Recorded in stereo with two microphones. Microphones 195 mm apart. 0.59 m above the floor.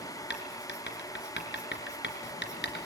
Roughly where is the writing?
Left.